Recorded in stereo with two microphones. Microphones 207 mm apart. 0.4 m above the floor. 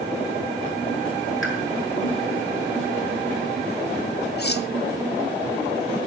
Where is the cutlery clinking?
55° left (ahead or behind), 1.0 m.